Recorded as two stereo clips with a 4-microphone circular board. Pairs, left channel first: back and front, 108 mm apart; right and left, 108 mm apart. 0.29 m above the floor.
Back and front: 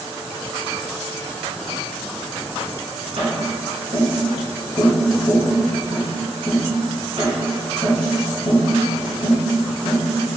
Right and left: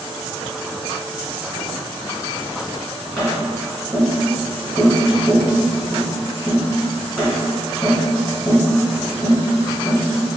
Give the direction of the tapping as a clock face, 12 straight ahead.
12 o'clock.